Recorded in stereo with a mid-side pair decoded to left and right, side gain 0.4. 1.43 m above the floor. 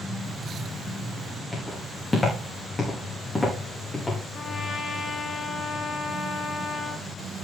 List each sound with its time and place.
1.5 s footsteps: 30° left, 8 m
4.3 s a trumpet: 50° left, 2.0 m